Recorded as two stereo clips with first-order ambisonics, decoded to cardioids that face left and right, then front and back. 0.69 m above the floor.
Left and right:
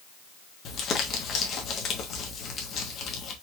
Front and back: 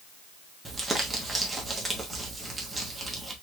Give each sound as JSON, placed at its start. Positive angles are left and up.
{"t": 0.7, "sound": "crumpling", "azimuth_deg": 100, "distance_m": 1.1}